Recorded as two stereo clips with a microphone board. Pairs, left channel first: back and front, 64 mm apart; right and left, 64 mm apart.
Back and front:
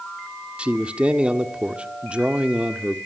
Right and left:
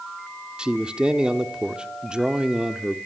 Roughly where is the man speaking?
Ahead left.